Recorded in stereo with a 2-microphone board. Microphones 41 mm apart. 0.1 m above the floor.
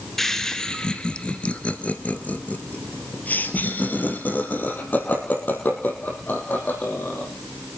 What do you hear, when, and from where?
0.2 s laughter: 10° left (ahead or behind), 1.4 m; by 7.3 s 50° left (ahead or behind), 4.5 m